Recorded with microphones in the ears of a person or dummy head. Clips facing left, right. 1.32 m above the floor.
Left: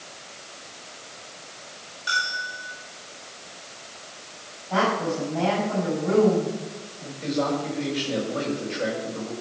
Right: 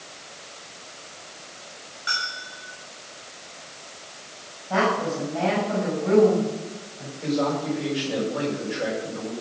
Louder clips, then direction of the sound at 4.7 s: Right 1 dB; 45° right (ahead or behind).